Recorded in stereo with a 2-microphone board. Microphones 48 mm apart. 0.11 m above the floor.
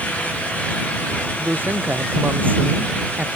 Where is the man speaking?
40° right (ahead or behind).